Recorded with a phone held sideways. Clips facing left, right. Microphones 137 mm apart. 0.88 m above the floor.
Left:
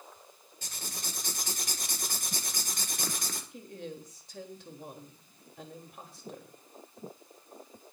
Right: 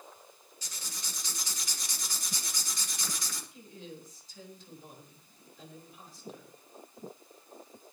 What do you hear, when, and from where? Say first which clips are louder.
0.6 s writing: left 5 dB; 55° left (ahead or behind), 2.5 m
3.5 s a woman speaking: left 5 dB; 70° left (ahead or behind), 4 m